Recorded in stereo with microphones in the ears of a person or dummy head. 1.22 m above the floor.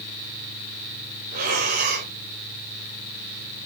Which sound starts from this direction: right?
Breathing, at 1.3 s.